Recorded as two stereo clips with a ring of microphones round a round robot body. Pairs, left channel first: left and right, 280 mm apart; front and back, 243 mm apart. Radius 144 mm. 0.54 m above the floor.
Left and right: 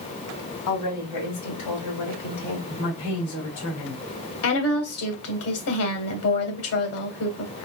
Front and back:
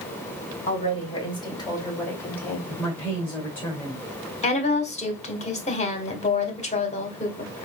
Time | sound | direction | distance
0.7 | a woman speaking | 65° left | 3 m
2.7 | a woman speaking | 80° left | 2.5 m
4.4 | a woman speaking | 60° left | 1.8 m